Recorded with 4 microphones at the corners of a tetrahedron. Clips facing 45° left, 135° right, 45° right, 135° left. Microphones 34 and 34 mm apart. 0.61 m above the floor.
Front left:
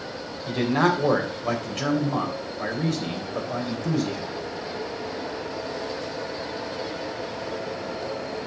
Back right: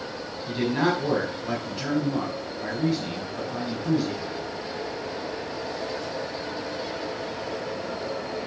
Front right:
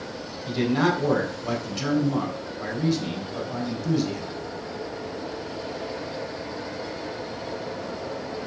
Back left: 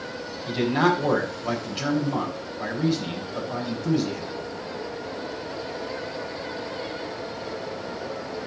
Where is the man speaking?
55° left, 3 m.